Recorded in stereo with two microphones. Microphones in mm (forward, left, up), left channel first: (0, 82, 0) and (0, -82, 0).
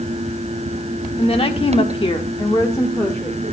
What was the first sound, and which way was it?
A woman speaking, 35° left (ahead or behind).